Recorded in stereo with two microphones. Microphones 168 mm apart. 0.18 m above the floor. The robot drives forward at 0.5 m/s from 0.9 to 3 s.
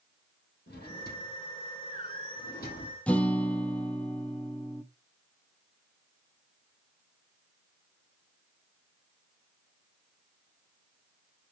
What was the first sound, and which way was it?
A drawer, 75° left (ahead or behind).